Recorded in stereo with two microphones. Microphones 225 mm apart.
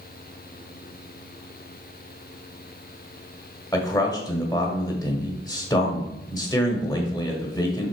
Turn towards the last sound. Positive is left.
turn(degrees=15)  # may be behind; listen again after turning